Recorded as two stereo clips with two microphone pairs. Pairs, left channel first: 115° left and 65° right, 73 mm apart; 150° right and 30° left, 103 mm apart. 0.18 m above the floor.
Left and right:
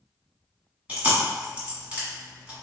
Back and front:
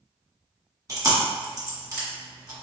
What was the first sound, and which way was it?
Chewing, straight ahead.